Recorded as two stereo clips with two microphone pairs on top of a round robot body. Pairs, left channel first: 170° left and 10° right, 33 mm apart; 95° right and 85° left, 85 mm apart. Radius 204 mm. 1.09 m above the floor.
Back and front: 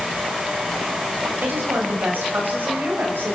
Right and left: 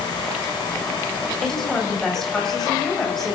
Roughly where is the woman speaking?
Ahead.